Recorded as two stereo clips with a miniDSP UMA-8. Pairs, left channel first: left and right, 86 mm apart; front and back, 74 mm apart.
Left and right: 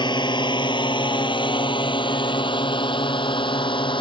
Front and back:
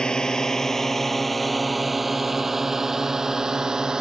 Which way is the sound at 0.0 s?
80° left.